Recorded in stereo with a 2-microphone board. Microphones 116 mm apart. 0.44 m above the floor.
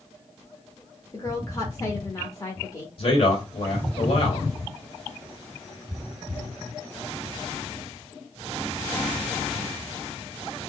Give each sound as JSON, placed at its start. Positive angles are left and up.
{"t": 1.1, "sound": "a woman speaking", "side_deg": 30, "distance_m": 0.9}
{"t": 3.0, "sound": "a man speaking", "side_deg": 50, "distance_m": 1.9}